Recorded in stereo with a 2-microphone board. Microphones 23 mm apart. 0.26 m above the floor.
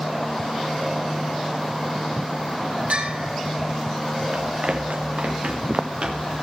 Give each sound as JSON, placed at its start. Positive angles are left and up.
{"t": 2.9, "sound": "a bell", "side_deg": -75, "distance_m": 4.0}
{"t": 4.3, "sound": "running footsteps", "side_deg": -75, "distance_m": 1.6}